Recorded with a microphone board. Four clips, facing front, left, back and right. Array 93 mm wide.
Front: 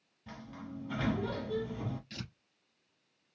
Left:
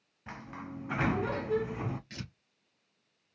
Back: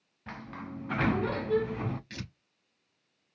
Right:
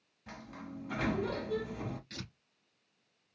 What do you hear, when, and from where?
0.3 s a sliding door: 150° left, 0.5 m
2.1 s tearing paper: 165° left, 2 m